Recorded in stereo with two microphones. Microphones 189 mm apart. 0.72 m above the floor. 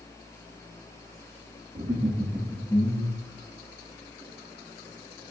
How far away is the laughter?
About 1.8 m.